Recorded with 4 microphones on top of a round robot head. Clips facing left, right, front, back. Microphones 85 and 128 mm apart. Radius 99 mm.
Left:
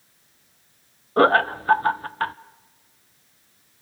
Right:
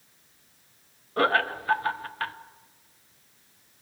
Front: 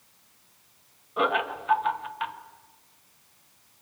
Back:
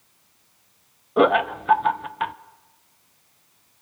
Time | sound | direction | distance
1.2 | laughter | 145° left | 0.9 m